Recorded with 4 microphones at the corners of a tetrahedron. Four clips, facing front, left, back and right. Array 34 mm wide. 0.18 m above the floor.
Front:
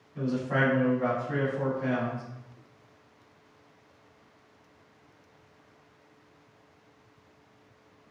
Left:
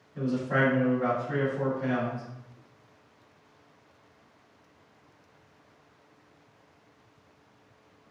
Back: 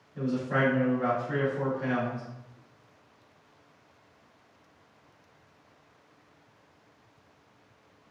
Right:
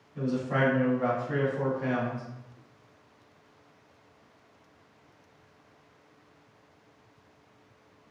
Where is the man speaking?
10° left, 1.3 m; by 2.2 s 140° right, 1.2 m.